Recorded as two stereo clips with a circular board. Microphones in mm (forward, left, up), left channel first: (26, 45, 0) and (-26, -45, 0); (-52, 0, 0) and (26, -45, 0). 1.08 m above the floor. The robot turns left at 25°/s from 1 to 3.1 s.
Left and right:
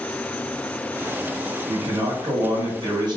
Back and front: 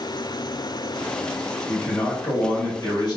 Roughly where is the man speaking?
Behind right.